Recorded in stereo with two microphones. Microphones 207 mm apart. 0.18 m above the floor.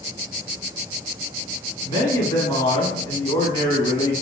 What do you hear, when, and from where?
1.9 s a man speaking: 20° left (ahead or behind), 1.0 m